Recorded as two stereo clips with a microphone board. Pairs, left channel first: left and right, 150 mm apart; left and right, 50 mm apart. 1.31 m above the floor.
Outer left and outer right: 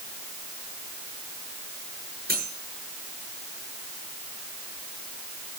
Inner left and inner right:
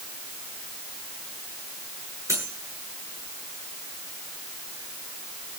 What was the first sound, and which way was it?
Cutlery clinking, 80° right.